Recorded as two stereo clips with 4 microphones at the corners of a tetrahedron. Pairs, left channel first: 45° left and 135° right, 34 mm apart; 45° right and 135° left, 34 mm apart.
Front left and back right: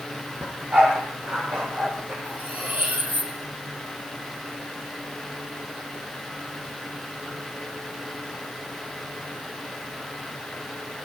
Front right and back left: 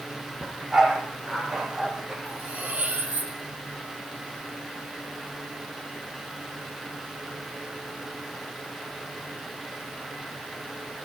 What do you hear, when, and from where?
0.4 s a dog barking: 145° right, 9 m; by 2.1 s 150° right, 11 m
2.2 s cutlery clinking: 175° right, 6 m